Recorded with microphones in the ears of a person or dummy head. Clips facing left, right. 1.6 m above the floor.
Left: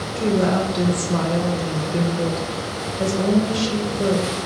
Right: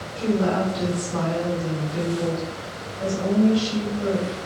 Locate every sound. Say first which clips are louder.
0.2 s a woman speaking: left 3 dB; 55° left (ahead or behind), 0.8 m